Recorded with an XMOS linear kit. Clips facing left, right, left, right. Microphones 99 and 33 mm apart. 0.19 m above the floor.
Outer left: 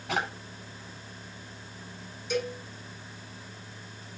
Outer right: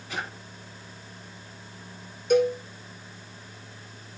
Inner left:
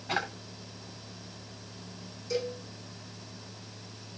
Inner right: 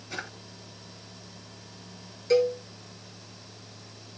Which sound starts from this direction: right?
A cowbell, at 2.3 s.